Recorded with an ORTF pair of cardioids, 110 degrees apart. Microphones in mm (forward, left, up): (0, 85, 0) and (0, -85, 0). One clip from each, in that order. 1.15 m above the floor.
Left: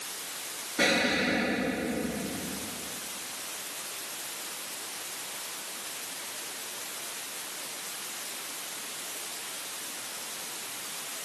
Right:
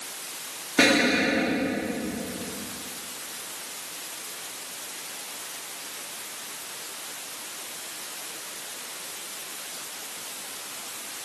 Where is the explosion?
65° right, 3 m.